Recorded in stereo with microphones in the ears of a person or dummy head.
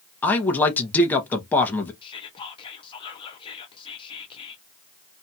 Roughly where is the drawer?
No drawer in this recording.